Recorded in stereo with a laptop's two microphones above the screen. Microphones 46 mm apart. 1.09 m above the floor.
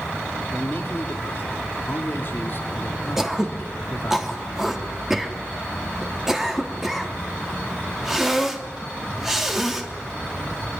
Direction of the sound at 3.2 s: 10° right (ahead or behind).